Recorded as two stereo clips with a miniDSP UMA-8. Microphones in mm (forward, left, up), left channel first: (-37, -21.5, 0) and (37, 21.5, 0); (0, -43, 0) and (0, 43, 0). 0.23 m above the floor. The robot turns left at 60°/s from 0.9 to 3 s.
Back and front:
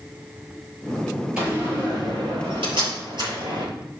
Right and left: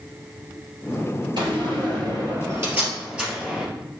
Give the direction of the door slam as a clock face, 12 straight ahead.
8 o'clock.